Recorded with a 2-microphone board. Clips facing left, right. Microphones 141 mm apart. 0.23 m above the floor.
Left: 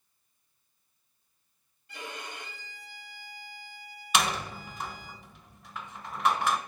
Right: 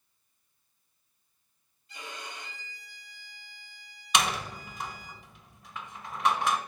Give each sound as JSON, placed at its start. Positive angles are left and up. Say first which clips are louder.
{"t": 1.9, "sound": "a violin", "louder": "left 2 dB", "side_deg": 60, "distance_m": 2.5}
{"t": 4.1, "sound": "a door slam", "louder": "even", "side_deg": 0, "distance_m": 1.2}